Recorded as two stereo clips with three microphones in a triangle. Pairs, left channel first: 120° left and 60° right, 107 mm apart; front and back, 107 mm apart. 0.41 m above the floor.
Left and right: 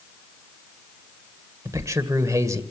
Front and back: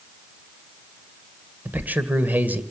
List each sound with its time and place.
1.6 s a man speaking: 110° right, 1.9 m